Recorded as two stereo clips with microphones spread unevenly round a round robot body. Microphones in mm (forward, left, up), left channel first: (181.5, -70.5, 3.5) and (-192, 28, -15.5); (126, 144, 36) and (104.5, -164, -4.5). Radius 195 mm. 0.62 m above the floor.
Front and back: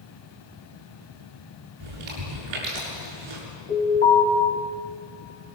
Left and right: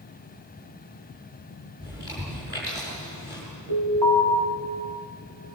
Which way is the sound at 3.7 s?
80° right.